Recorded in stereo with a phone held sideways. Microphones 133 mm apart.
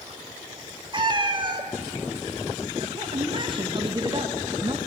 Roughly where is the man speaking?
Right.